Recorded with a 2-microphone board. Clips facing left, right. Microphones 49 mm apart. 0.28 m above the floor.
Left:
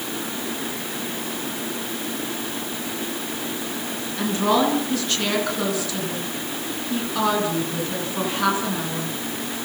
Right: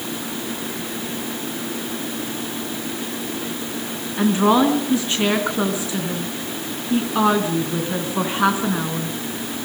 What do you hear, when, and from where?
4.2 s a woman speaking: 25° right (ahead or behind), 3 m